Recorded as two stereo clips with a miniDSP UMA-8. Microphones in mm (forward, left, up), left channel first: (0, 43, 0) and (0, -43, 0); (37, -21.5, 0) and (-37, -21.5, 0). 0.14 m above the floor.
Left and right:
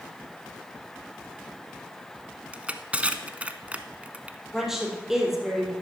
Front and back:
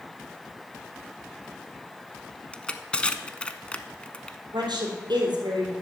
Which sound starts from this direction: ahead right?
Crushing, at 2.5 s.